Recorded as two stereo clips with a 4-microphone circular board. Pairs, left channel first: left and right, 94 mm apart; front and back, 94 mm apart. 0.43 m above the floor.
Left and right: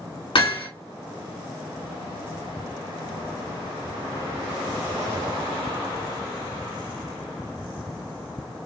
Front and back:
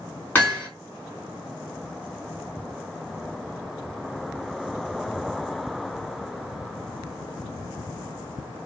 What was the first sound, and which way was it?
Hammering, 70° left.